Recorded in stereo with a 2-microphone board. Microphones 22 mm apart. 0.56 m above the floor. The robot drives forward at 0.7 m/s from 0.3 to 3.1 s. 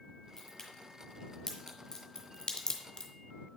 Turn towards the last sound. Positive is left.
turn(degrees=50)  # may be behind; listen again after turning